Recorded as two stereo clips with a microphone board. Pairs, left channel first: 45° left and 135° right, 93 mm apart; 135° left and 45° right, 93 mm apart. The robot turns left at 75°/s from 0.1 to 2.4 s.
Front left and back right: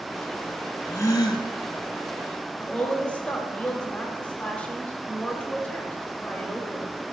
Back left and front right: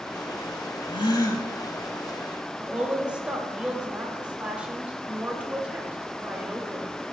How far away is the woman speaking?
About 0.8 m.